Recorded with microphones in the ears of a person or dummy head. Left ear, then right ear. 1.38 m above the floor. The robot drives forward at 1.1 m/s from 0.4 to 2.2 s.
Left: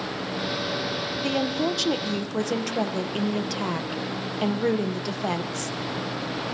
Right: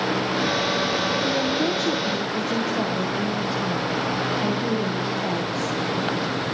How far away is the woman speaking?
About 1.2 m.